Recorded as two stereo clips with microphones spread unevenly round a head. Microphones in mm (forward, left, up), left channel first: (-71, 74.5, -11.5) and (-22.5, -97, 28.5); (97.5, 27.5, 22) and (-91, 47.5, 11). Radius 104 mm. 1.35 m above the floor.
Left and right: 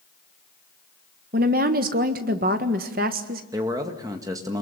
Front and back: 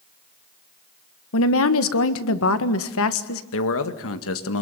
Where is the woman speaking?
20° right, 1.6 m.